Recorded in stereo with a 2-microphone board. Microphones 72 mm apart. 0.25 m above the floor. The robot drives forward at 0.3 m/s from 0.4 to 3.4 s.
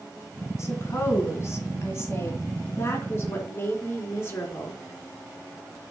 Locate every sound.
0.6 s a woman speaking: 40° left (ahead or behind), 3 m; by 4.8 s 30° left (ahead or behind), 3.5 m